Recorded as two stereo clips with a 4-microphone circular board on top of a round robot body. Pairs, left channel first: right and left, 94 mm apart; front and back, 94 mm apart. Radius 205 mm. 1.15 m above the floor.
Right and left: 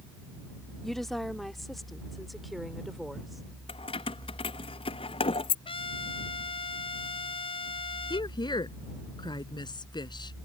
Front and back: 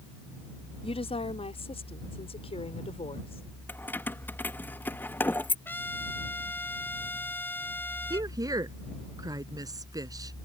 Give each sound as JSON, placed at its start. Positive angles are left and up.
{"t": 0.8, "sound": "a woman speaking", "azimuth_deg": -5}
{"t": 3.7, "sound": "keys jangling", "azimuth_deg": -70}
{"t": 5.7, "sound": "a trumpet", "azimuth_deg": -70}
{"t": 8.1, "sound": "a woman speaking", "azimuth_deg": -130}